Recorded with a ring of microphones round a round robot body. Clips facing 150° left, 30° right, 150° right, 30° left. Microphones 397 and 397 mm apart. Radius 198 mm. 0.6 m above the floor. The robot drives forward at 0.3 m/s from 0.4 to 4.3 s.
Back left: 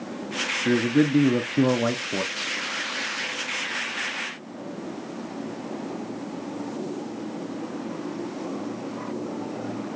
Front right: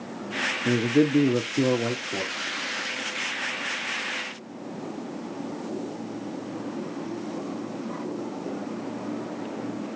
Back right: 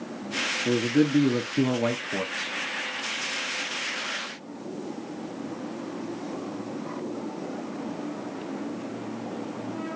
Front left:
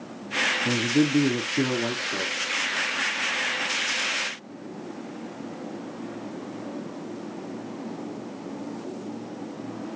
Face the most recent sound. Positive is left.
turn(degrees=170)